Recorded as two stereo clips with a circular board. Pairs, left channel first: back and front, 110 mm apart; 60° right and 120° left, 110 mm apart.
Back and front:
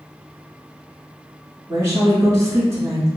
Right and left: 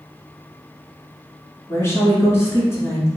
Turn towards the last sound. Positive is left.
turn(degrees=-25)